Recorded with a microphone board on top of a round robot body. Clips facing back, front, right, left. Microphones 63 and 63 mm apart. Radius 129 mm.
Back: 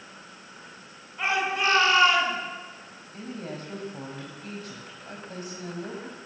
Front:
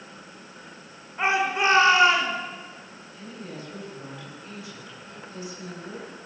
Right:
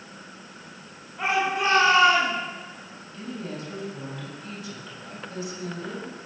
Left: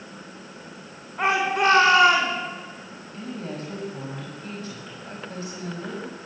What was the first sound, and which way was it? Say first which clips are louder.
A shout: front 3 dB, left 3 dB; 65° left.